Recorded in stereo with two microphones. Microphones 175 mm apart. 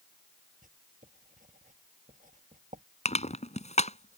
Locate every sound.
0.6 s writing: 50° right (ahead or behind)
3.0 s crushing: 40° left (ahead or behind)